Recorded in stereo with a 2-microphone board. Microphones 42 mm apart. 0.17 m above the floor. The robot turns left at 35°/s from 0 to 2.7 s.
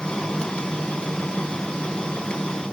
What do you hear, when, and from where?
Only background noise.